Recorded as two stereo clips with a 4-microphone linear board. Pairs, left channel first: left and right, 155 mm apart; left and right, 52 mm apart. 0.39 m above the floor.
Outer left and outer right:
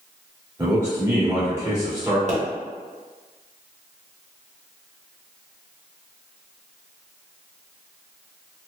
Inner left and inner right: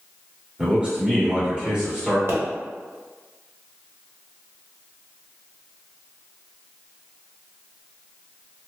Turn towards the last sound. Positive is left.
turn(degrees=-50)  # may be behind; listen again after turning